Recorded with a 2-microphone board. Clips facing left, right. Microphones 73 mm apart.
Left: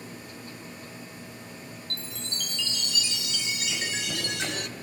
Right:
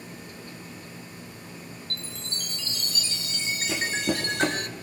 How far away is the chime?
About 0.6 m.